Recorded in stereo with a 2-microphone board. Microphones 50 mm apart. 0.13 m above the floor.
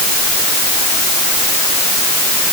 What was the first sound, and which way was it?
Only background noise.